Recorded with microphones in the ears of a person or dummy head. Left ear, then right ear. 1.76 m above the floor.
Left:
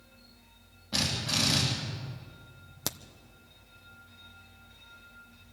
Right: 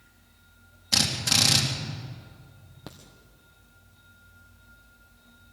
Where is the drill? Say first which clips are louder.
Right 6 dB; 75° right (ahead or behind), 4 m.